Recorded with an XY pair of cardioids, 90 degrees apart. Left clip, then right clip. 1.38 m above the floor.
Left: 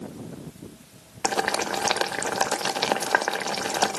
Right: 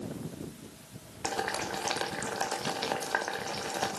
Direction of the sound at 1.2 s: 60° left.